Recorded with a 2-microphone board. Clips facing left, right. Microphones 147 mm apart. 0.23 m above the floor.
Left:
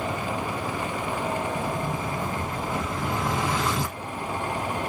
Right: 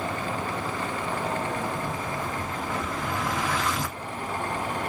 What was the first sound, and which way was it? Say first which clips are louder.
An explosion: left 2 dB; 25° left (ahead or behind).